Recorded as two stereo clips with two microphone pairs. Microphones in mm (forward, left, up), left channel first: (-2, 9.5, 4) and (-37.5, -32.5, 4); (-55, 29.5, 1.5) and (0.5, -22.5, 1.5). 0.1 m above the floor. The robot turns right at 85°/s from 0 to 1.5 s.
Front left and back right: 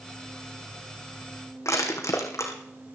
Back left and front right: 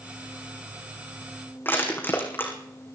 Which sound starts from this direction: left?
Crushing, at 1.6 s.